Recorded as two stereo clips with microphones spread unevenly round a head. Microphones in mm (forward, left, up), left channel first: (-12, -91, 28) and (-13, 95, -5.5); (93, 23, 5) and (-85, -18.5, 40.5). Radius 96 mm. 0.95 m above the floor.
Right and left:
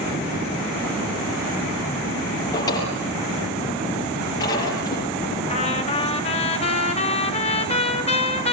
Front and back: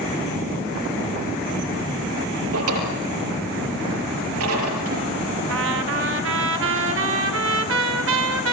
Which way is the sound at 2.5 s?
160° right.